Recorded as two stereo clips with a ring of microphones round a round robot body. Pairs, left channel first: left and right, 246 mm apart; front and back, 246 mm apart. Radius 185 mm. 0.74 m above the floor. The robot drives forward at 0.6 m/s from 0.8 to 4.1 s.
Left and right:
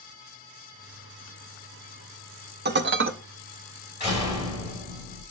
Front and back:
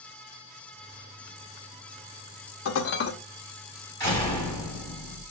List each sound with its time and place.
2.6 s dishes clattering: 40° right, 0.9 m; by 3.1 s 55° right, 0.8 m
4.0 s a door slam: 175° right, 4.5 m